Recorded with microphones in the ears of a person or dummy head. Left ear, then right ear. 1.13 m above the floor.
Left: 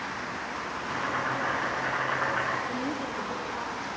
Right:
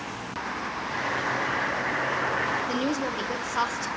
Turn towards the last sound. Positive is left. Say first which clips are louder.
# right 4 dB
turn(degrees=-55)  # may be behind; listen again after turning